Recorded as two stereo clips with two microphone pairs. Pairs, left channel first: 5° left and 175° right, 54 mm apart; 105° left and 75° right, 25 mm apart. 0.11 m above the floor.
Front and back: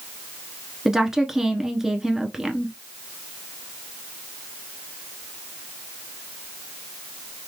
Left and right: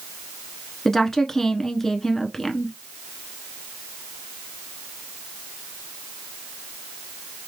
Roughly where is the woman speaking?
Behind left.